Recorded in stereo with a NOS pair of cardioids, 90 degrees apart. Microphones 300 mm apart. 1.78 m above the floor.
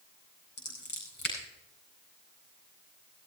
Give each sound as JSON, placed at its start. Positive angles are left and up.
{"t": 0.6, "sound": "scissors", "azimuth_deg": 35, "distance_m": 9.0}